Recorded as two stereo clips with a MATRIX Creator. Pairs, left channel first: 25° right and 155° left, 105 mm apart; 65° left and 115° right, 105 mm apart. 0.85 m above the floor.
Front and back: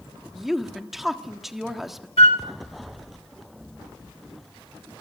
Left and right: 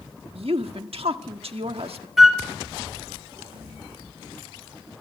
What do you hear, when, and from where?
0.3 s a woman speaking: 115° right, 1.4 m
2.2 s a flute: 25° right, 1.7 m